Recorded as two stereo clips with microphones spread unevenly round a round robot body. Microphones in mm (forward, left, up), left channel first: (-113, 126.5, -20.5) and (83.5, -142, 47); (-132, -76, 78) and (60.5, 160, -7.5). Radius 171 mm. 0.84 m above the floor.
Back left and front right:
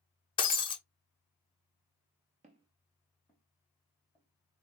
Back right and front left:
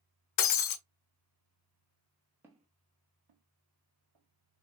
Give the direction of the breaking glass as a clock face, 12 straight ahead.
5 o'clock.